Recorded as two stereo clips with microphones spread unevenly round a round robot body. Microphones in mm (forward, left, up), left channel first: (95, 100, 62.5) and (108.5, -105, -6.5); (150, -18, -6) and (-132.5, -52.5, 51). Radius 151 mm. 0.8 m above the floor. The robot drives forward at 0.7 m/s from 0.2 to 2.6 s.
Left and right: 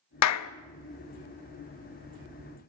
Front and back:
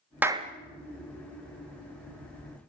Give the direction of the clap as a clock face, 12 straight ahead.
9 o'clock.